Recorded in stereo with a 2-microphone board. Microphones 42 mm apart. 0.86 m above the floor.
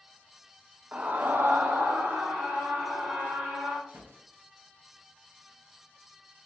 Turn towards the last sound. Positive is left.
turn(degrees=-60)  # may be behind; listen again after turning